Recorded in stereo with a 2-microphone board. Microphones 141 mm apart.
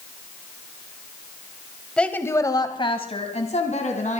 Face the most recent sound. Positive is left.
turn(degrees=65)  # may be behind; listen again after turning